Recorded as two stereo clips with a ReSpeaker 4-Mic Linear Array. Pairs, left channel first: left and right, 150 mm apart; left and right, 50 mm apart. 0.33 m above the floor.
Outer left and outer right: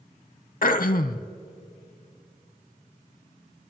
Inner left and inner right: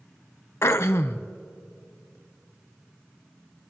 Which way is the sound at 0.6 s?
70° left (ahead or behind).